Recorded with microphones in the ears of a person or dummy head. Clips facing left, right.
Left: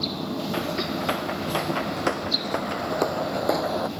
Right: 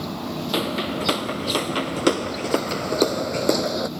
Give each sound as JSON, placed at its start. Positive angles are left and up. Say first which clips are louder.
{"t": 0.5, "sound": "footsteps", "louder": "right 3 dB", "side_deg": -50}